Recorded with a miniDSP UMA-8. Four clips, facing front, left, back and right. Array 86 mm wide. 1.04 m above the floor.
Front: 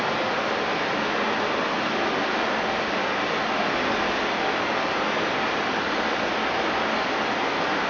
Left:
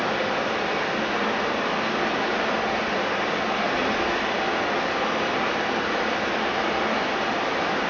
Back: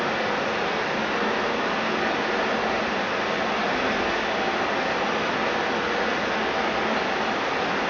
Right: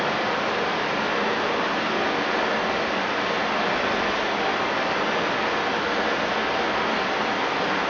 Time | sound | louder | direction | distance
0.0 | running water | right 1 dB, even | 65° right | 0.7 m